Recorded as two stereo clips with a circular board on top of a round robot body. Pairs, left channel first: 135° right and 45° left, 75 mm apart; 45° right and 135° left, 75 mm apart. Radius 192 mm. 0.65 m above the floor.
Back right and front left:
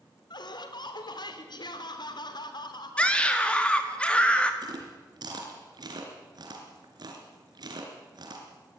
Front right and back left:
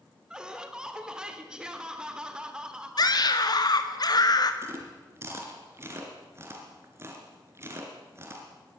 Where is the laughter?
145° right, 3 m.